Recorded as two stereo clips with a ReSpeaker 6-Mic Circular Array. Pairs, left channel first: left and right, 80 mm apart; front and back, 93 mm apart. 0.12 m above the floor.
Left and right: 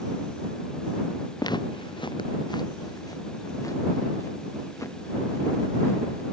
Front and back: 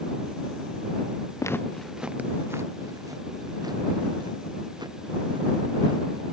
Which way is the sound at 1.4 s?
55° left.